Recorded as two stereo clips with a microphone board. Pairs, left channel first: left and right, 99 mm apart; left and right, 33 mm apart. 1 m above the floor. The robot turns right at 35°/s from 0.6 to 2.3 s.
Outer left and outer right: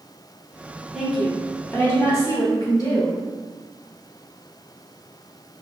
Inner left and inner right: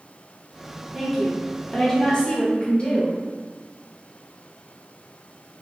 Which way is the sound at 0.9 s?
5° right.